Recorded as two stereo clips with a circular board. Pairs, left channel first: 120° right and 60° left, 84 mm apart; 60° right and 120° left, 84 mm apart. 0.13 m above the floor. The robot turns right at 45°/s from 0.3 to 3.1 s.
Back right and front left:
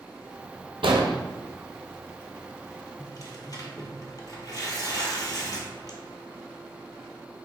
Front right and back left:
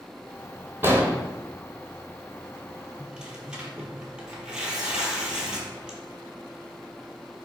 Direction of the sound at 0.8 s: 60° left.